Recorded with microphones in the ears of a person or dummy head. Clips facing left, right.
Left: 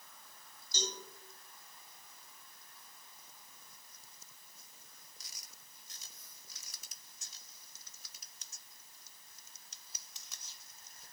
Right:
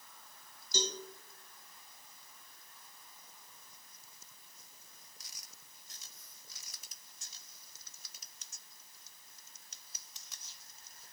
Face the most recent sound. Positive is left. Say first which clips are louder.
# right 4 dB
turn(degrees=-70)  # may be behind; listen again after turning